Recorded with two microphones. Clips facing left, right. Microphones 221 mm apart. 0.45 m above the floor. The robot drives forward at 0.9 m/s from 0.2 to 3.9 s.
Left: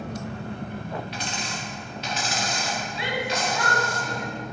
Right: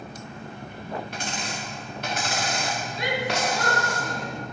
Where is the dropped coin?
45° right (ahead or behind), 5 m; by 4.0 s 75° right (ahead or behind), 3.5 m.